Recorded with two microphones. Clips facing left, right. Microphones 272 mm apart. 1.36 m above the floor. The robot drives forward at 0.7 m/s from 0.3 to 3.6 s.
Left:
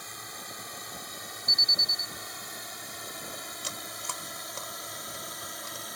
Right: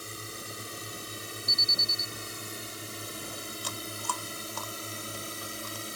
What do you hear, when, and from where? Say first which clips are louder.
0.0 s a drone: right 5 dB; 35° right (ahead or behind); by 6.0 s 30° right (ahead or behind)
1.5 s an alarm: right 3 dB; 15° left (ahead or behind)
3.6 s chewing: right 4 dB; 25° left (ahead or behind)